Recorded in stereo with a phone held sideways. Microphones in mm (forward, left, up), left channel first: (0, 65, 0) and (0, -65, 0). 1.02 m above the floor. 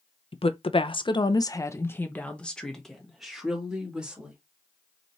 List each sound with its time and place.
0.3 s a woman speaking: 45° left (ahead or behind), 0.7 m; by 4.4 s 5° right (ahead or behind), 1.8 m